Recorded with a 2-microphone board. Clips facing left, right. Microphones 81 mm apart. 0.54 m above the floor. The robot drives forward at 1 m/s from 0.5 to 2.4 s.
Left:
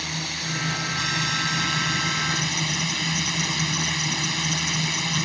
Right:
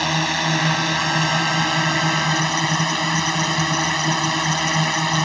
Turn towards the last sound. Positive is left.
turn(degrees=-65)  # may be behind; listen again after turning